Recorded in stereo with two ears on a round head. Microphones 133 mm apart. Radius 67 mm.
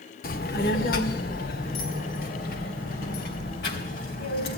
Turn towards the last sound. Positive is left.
turn(degrees=65)  # may be behind; listen again after turning